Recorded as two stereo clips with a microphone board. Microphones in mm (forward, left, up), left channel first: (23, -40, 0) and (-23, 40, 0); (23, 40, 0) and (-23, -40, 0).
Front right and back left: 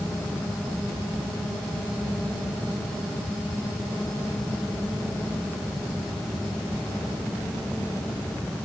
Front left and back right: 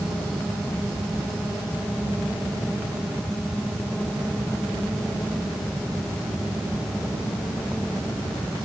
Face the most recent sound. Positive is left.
No sound to turn to.